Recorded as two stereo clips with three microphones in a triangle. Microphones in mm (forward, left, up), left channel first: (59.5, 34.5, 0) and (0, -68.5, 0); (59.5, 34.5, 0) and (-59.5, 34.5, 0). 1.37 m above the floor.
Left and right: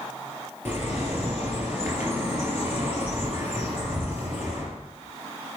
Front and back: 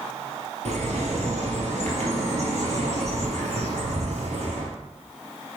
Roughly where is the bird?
Behind.